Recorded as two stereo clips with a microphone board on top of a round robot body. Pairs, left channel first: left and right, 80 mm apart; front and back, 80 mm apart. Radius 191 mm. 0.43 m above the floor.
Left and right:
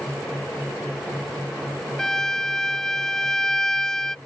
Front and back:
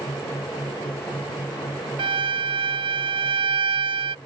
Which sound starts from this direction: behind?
A violin, at 2.0 s.